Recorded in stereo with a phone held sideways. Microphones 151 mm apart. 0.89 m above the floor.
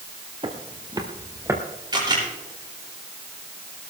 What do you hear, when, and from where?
0.4 s footsteps: 40° right (ahead or behind), 1.6 m; by 1.6 s 15° right (ahead or behind), 1.8 m
1.9 s a camera shutter: 25° right (ahead or behind), 8 m